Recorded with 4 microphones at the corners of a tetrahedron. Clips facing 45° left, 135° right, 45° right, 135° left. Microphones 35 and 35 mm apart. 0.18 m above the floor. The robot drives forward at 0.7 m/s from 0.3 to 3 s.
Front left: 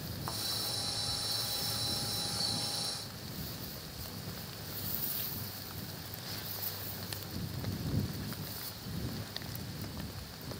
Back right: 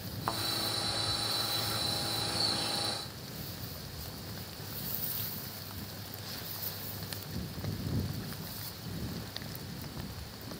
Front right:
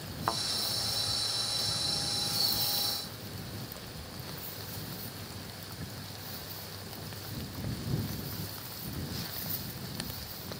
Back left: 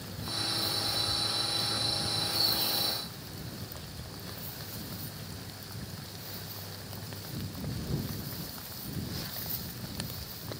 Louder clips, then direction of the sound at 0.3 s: Back right 7 dB, front right 5 dB; 75° right.